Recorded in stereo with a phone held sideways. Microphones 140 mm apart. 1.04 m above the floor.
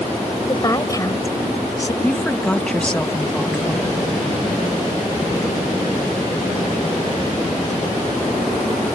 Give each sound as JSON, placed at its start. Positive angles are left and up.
{"t": 0.5, "sound": "a woman speaking", "side_deg": 25}
{"t": 2.0, "sound": "a woman speaking", "side_deg": 5}